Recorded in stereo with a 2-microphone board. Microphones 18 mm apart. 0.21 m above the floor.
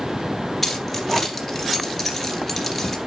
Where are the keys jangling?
10° left (ahead or behind), 2.5 m.